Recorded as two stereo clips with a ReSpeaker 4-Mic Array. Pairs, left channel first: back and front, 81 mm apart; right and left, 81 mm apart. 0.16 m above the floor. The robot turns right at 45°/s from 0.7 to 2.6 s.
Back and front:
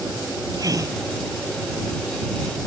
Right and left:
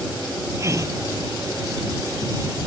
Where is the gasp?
40° left; by 1.0 s 50° left.